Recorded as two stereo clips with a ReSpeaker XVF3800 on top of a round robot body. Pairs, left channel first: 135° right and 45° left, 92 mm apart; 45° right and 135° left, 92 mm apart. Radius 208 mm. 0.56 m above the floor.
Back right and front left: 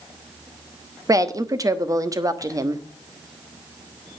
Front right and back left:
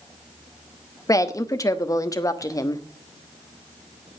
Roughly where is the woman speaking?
Ahead.